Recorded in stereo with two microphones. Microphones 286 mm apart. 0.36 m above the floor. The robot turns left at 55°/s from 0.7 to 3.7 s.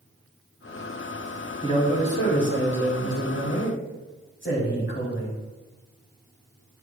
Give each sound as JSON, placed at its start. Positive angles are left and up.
{"t": 1.6, "sound": "a man speaking", "azimuth_deg": 160, "distance_m": 2.5}